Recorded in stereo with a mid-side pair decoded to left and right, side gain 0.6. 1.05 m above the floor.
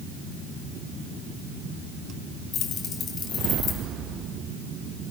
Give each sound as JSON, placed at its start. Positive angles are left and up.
{"t": 2.5, "sound": "keys jangling", "azimuth_deg": 45, "distance_m": 4.0}